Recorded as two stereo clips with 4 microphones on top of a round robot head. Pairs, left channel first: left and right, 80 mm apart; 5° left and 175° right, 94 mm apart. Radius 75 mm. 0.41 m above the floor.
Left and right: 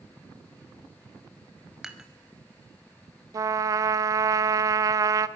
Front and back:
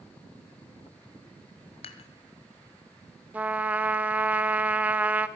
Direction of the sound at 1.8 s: 10° right.